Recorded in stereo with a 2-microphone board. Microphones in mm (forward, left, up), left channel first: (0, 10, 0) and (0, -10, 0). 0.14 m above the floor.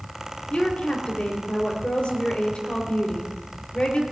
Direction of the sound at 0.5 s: 65° left (ahead or behind).